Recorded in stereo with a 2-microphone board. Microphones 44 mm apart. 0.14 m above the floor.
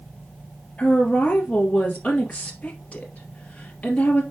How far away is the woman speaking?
About 2 m.